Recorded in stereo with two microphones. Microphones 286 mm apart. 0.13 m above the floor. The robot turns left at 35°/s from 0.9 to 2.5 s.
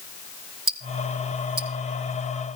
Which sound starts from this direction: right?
Ticking, at 0.7 s.